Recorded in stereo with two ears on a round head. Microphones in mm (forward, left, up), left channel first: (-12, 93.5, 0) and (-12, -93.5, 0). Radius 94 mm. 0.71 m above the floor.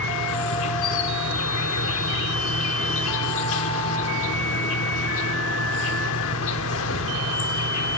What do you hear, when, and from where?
0.0 s an insect: 70° left (ahead or behind), 1.0 m